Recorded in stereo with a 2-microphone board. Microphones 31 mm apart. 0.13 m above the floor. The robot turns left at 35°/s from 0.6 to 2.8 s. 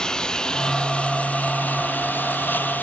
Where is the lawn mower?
25° left (ahead or behind); by 2.8 s 70° left (ahead or behind).